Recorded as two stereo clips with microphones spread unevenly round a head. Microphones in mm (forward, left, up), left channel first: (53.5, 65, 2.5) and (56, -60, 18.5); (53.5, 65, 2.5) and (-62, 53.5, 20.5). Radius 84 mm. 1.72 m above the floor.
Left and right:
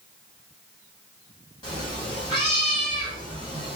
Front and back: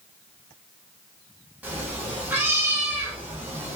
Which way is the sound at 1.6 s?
135° left.